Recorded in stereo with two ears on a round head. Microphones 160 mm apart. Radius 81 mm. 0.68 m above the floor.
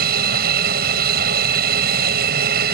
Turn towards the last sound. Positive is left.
turn(degrees=-55)  # may be behind; listen again after turning